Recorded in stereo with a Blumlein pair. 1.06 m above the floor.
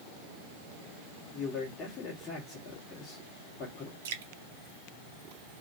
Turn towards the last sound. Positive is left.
turn(degrees=-55)